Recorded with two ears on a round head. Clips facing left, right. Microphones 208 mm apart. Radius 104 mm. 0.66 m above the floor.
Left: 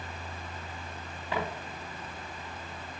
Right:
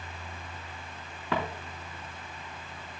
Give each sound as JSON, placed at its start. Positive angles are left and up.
{"t": 1.3, "sound": "footsteps", "side_deg": -65, "distance_m": 2.5}